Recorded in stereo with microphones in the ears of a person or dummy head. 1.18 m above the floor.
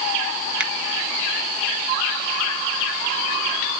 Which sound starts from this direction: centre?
A finger snap, at 0.6 s.